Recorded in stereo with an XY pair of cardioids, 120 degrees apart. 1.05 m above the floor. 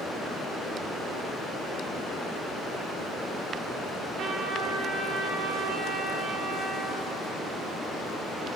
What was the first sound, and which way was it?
A trumpet, 60° right.